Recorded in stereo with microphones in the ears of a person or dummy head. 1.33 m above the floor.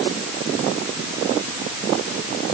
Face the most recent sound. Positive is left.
No sound to turn to.